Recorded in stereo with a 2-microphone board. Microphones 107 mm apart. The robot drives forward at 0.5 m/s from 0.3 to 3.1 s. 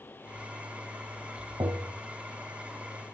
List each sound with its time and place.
1.6 s tapping: 35° right (ahead or behind), 0.6 m